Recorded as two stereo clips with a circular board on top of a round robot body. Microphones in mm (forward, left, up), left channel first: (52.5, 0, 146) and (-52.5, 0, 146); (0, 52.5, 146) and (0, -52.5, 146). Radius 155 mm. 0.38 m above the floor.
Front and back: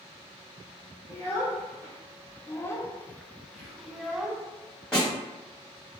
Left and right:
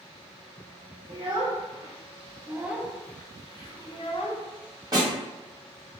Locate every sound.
1.1 s a child speaking: 70° right, 1.1 m; by 4.5 s 90° left, 0.9 m
3.5 s whispering: 90° right, 1.8 m
4.9 s a snare drum: 80° right, 1.8 m